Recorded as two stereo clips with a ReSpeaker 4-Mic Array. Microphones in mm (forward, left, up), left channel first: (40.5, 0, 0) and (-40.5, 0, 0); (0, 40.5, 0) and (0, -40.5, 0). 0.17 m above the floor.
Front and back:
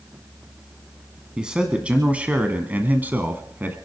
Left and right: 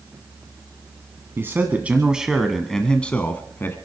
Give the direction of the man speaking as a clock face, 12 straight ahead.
4 o'clock.